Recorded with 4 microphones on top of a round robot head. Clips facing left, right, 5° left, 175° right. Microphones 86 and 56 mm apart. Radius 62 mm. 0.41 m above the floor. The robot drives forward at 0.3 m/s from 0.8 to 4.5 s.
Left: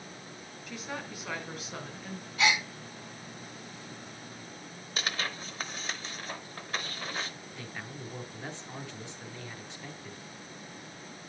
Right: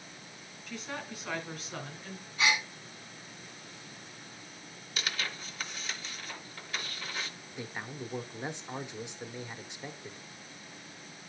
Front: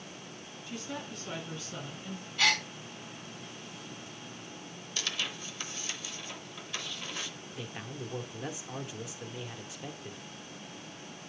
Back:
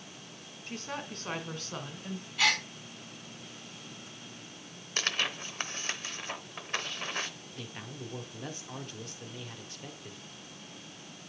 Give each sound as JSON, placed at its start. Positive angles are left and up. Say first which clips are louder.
{"t": 0.7, "sound": "a woman speaking", "louder": "left 1 dB, back 1 dB", "azimuth_deg": 170, "distance_m": 1.7}
{"t": 2.4, "sound": "a gasp", "louder": "left 2 dB, even", "azimuth_deg": 100, "distance_m": 3.0}
{"t": 5.0, "sound": "tearing paper", "louder": "left 2 dB, back 5 dB", "azimuth_deg": 145, "distance_m": 0.9}
{"t": 7.6, "sound": "a man speaking", "louder": "right 4 dB, front 2 dB", "azimuth_deg": -55, "distance_m": 0.8}